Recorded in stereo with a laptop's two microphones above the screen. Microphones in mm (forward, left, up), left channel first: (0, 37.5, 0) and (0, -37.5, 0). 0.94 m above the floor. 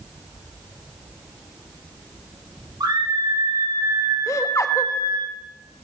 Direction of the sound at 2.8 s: 85° right.